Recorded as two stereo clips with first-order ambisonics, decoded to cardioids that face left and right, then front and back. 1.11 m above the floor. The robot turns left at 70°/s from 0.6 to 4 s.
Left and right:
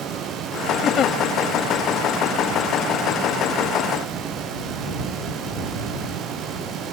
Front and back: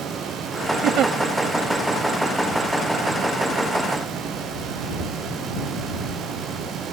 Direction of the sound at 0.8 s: 150° left.